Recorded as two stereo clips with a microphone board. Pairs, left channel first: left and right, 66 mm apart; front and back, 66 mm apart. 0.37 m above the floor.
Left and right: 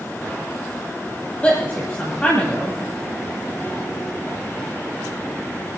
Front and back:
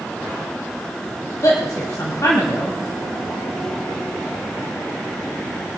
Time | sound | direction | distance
1.4 | a woman speaking | 20° left | 1.9 m